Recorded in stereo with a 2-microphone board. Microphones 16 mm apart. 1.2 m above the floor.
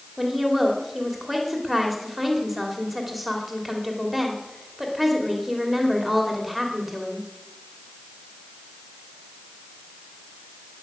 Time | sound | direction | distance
0.2 | a woman speaking | centre (ahead or behind) | 2.5 m